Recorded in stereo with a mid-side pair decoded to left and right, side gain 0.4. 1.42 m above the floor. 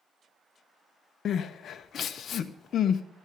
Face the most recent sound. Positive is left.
turn(degrees=60)